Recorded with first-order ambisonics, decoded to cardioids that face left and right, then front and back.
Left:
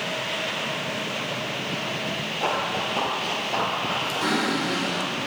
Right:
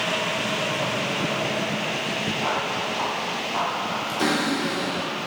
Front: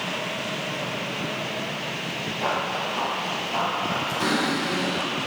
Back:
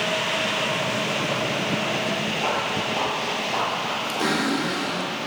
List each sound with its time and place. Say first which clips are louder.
2.4 s running footsteps: left 3 dB, front 2 dB; 115° left, 2 m; by 5.1 s 170° right, 1.6 m
4.2 s a cupboard door: right 3 dB, back 2 dB; 120° right, 3.5 m